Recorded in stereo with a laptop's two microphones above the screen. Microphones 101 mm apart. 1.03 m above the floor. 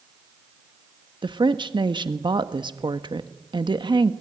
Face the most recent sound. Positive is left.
turn(degrees=-50)  # may be behind; listen again after turning